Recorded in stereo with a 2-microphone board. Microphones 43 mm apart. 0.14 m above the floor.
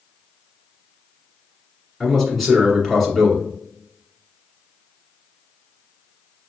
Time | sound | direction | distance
2.0 | a man speaking | centre (ahead or behind) | 1.5 m